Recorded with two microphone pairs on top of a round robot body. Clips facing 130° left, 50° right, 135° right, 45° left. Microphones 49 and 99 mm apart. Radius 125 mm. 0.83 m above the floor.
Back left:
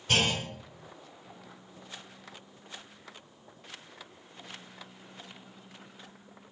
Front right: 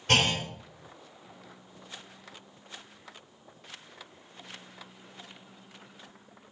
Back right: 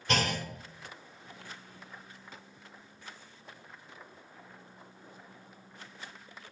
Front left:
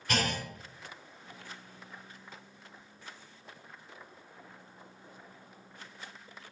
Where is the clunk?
80° right, 2.5 m.